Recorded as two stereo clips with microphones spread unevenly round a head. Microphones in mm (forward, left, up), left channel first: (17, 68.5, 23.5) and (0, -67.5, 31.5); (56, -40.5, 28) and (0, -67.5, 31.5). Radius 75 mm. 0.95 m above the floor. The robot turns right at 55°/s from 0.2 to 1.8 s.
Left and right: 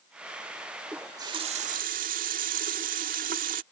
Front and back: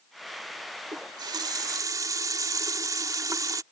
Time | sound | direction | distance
0.9 | a running tap | 175° right | ?